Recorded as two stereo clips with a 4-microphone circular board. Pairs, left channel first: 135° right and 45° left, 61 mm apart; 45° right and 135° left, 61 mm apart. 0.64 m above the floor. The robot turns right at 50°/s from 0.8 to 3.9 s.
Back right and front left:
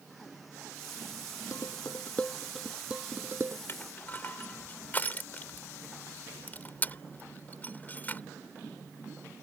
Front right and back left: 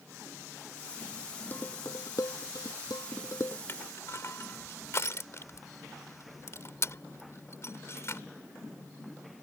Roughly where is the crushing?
Right.